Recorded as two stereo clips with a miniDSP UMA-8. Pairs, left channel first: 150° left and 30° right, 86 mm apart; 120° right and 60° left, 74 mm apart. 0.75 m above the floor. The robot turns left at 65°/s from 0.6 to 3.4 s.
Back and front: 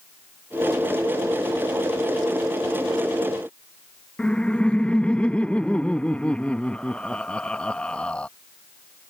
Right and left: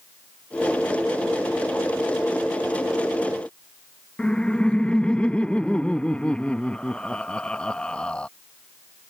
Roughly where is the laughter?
Behind.